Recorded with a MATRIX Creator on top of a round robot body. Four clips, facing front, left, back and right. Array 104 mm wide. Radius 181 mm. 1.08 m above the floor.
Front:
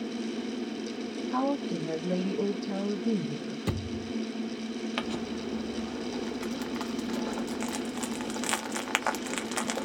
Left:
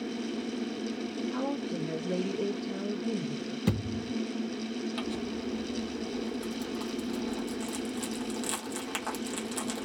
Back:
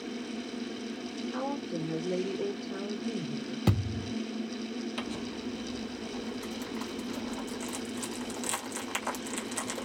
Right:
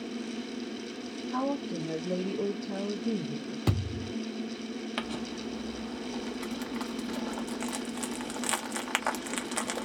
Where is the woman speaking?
15° right, 1.5 m.